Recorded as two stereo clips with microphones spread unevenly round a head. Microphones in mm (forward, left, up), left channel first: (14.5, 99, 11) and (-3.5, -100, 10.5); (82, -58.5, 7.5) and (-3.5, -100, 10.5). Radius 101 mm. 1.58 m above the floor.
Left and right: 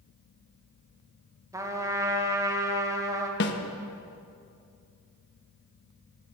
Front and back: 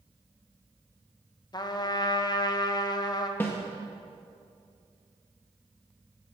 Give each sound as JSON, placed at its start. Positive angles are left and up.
{"t": 1.5, "sound": "a trumpet", "azimuth_deg": -20, "distance_m": 1.4}
{"t": 3.4, "sound": "a snare drum", "azimuth_deg": 100, "distance_m": 1.1}